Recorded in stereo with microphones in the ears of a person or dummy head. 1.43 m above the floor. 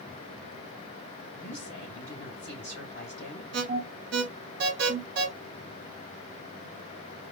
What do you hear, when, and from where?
1.4 s a woman speaking: 45° left (ahead or behind), 2.5 m
3.5 s an alarm: 60° right (ahead or behind), 1.1 m